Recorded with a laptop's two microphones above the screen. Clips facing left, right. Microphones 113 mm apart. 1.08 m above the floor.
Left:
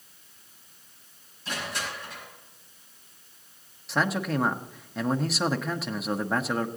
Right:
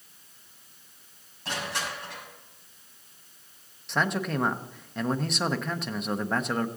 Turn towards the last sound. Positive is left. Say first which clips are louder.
# left 1 dB
turn(degrees=5)  # may be behind; listen again after turning